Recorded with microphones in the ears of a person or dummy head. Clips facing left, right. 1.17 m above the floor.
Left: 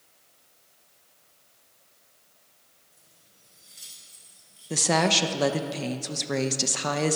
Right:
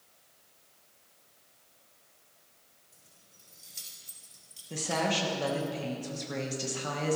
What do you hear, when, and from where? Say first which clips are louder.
2.9 s keys jangling: even; 55° right (ahead or behind), 5.5 m; by 5.7 s 70° right (ahead or behind), 3 m
4.7 s a woman speaking: left 7 dB; 70° left (ahead or behind), 1.1 m